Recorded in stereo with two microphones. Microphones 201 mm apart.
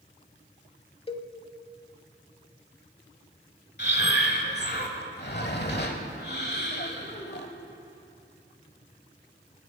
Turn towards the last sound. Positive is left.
turn(degrees=55)  # may be behind; listen again after turning